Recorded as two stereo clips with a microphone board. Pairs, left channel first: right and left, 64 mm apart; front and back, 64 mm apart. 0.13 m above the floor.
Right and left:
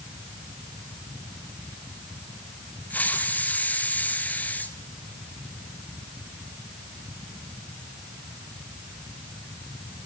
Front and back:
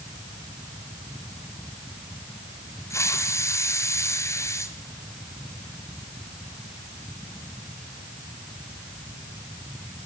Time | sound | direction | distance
2.9 | a hiss | 30° right | 1.7 m